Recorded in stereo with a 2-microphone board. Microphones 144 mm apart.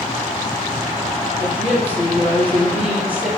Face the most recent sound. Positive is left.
turn(degrees=-10)  # may be behind; listen again after turning